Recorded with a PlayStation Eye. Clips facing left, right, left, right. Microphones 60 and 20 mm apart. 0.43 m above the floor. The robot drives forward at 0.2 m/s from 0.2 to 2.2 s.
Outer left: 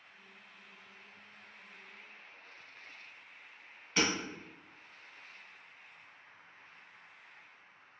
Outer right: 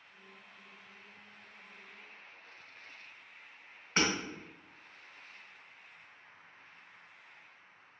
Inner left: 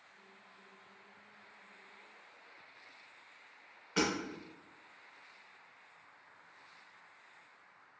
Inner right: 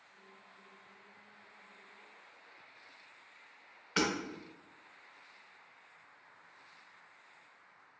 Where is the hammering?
40° right (ahead or behind), 1.4 m.